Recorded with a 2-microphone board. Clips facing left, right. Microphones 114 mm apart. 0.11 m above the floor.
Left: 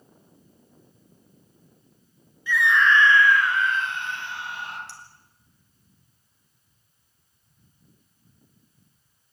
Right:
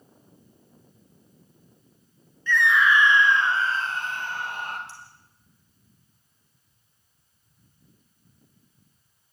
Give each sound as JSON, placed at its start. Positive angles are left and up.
{"t": 2.5, "sound": "a scream", "side_deg": 10, "distance_m": 1.1}
{"t": 4.9, "sound": "a clink", "side_deg": 70, "distance_m": 4.0}